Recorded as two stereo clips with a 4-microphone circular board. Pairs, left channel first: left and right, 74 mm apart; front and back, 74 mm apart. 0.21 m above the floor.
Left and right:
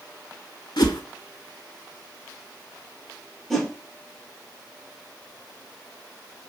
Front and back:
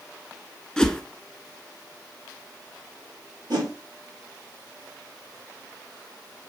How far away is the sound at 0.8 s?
About 0.6 m.